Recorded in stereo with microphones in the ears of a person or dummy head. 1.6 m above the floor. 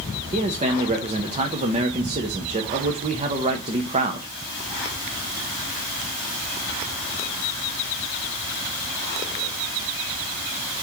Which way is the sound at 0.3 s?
35° right (ahead or behind).